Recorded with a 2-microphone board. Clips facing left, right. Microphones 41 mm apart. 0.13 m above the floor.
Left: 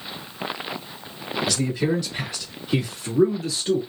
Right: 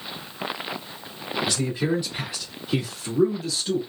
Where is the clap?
I don't hear a clap.